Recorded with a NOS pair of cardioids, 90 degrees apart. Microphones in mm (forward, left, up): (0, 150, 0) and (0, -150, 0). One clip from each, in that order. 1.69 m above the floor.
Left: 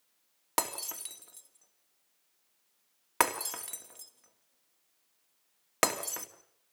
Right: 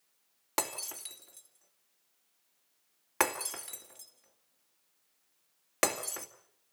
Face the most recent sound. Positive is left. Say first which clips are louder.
# left 2 dB
turn(degrees=20)